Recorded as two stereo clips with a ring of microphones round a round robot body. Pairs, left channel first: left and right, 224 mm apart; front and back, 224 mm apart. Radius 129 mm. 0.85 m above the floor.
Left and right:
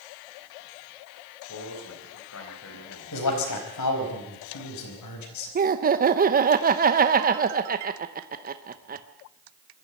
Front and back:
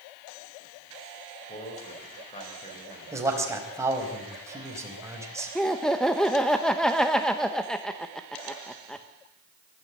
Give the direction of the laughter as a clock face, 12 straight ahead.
3 o'clock.